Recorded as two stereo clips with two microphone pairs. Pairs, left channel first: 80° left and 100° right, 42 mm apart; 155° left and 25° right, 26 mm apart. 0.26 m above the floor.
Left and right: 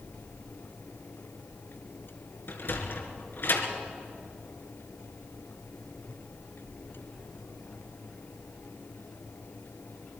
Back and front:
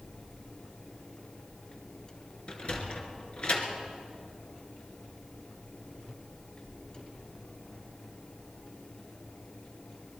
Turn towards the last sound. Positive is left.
turn(degrees=110)